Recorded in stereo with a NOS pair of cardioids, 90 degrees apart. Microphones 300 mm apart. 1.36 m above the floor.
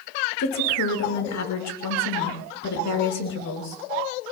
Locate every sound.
0.4 s a woman speaking: 65° left, 5.5 m